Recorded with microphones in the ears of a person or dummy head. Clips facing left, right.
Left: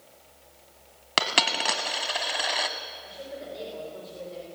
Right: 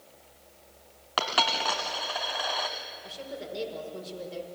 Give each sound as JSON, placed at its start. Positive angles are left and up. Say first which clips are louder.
{"t": 1.2, "sound": "a dropped coin", "louder": "even", "side_deg": 40, "distance_m": 1.6}
{"t": 3.0, "sound": "a woman speaking", "louder": "even", "side_deg": -35, "distance_m": 5.5}